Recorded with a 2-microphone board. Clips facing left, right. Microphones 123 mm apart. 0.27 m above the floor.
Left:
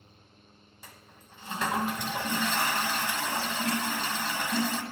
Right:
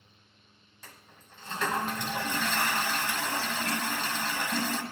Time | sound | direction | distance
0.8 | a toilet flushing | 10° left (ahead or behind) | 1.2 m